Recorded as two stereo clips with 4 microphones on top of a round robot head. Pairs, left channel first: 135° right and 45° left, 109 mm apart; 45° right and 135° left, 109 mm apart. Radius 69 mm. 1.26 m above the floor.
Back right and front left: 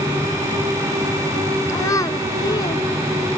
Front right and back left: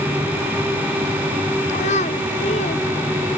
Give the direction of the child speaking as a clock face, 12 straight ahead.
2 o'clock.